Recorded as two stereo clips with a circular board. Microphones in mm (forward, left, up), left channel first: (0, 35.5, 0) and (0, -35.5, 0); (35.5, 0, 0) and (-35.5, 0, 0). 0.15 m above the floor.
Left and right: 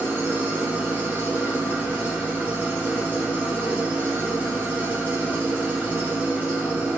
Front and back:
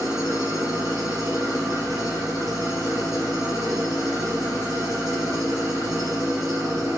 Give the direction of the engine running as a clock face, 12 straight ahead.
5 o'clock.